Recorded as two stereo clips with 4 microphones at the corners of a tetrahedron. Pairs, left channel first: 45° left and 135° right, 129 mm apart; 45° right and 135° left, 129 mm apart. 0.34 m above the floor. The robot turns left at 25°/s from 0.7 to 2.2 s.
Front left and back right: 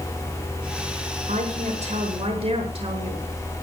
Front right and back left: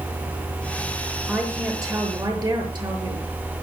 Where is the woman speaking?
150° right, 6 m; by 3.3 s 170° right, 6 m.